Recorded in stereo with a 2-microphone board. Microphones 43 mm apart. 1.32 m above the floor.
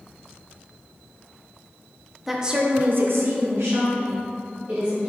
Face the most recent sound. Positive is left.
turn(degrees=-70)  # may be behind; listen again after turning